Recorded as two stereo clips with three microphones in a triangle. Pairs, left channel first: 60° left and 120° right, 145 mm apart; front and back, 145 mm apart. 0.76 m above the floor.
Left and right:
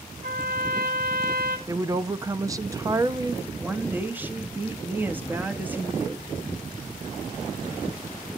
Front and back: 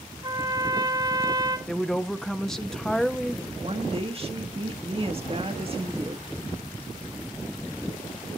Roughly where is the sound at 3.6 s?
Behind.